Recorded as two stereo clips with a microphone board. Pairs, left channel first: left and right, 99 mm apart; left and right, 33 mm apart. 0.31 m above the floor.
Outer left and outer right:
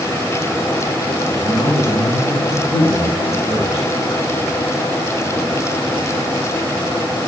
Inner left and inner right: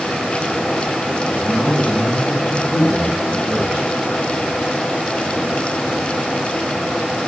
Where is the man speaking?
40° right (ahead or behind), 7.5 m.